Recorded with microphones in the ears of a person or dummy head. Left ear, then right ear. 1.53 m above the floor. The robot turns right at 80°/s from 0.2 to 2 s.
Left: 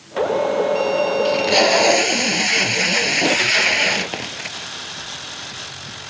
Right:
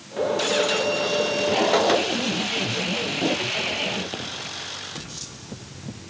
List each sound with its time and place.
1.2 s tape being pulled: 60° left; by 4.7 s 120° left